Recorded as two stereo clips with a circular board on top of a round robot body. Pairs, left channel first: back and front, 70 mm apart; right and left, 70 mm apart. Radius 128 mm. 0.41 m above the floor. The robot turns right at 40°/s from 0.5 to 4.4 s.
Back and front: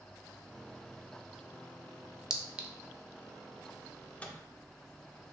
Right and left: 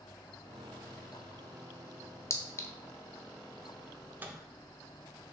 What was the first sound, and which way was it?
A clink, 75° right.